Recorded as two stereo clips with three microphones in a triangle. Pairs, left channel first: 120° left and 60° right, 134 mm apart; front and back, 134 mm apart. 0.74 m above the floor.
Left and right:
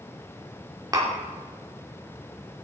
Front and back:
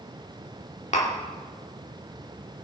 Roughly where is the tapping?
Ahead.